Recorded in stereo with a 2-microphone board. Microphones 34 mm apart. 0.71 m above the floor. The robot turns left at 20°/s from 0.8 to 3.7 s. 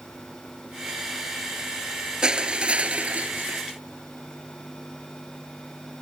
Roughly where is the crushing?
Right.